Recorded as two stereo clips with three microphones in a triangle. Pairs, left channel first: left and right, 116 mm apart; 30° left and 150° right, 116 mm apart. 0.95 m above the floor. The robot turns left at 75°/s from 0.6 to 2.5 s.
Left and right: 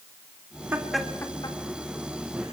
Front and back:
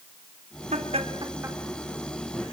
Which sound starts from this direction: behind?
Laughter, at 0.7 s.